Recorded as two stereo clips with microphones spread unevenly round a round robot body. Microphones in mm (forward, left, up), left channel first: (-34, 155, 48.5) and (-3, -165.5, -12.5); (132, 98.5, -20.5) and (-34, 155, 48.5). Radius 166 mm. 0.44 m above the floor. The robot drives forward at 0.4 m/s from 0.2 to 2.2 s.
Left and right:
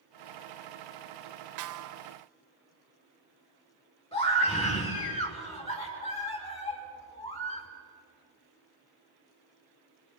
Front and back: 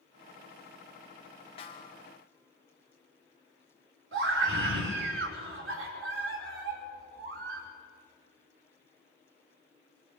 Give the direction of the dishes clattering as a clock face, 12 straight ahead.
I don't hear dishes clattering.